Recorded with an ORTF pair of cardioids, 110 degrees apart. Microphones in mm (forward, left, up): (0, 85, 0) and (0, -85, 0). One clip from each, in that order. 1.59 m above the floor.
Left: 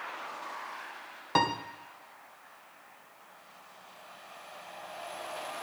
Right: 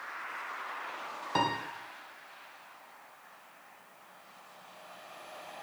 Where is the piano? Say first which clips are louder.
Left 3 dB; 20° left, 1.3 m.